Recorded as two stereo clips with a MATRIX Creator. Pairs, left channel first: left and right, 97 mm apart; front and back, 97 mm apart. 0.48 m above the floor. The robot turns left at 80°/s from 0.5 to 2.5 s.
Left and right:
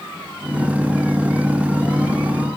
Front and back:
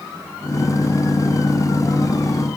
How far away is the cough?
No cough in this recording.